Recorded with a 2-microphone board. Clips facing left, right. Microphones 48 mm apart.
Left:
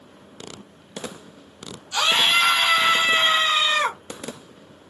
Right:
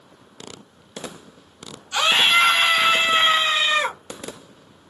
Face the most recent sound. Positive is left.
turn(degrees=-20)  # may be behind; listen again after turning